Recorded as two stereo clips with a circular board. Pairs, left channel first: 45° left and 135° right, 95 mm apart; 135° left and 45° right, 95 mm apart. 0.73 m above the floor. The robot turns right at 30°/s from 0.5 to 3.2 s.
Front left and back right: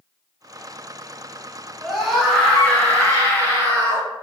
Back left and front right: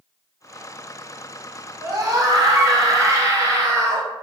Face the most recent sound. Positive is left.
turn(degrees=-5)